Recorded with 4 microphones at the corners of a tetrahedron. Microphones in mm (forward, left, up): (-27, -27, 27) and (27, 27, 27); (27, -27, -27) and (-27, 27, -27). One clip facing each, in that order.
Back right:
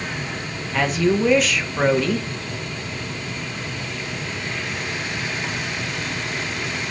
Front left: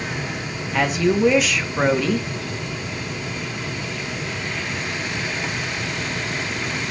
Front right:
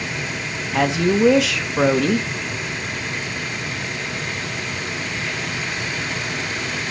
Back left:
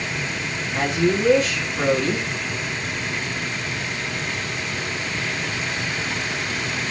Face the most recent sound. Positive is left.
turn(degrees=-45)